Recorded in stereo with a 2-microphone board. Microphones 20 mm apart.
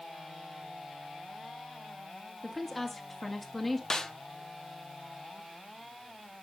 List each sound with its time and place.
2.4 s a woman speaking: 5° left (ahead or behind), 1.8 m
3.9 s a snare drum: 25° left (ahead or behind), 0.7 m